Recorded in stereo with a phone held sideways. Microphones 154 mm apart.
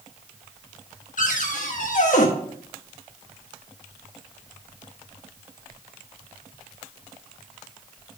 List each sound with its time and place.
1.2 s a cupboard door: 60° left (ahead or behind), 1.4 m